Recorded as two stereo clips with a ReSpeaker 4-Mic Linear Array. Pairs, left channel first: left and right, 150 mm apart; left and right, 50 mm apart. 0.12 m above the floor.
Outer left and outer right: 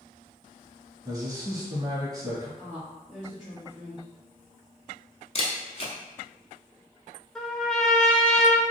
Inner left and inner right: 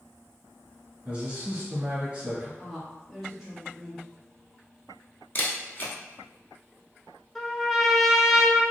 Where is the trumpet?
5° left (ahead or behind), 0.7 m.